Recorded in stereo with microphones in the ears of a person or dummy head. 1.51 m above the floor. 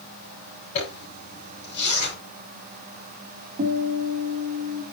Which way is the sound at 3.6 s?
45° right (ahead or behind).